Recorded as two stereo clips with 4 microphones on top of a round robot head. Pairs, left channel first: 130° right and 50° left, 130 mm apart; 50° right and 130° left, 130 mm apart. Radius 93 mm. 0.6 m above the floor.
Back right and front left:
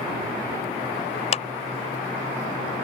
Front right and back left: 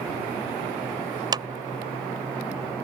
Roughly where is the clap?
Behind.